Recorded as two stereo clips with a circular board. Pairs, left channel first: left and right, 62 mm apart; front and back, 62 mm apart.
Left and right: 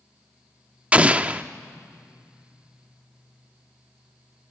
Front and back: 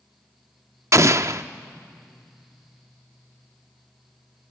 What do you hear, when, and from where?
0.9 s an explosion: 160° right, 0.5 m